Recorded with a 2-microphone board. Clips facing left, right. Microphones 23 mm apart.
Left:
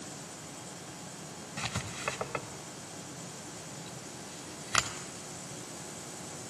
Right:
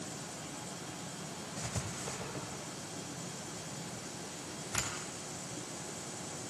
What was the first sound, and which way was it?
Writing, 75° left (ahead or behind).